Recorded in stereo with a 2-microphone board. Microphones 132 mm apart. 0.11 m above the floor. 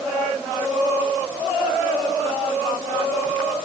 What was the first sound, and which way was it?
Only background noise.